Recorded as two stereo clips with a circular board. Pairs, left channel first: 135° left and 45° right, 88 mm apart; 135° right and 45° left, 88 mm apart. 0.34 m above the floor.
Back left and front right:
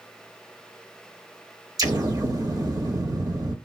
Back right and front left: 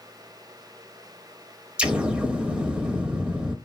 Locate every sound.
1.8 s an explosion: 30° right, 1.0 m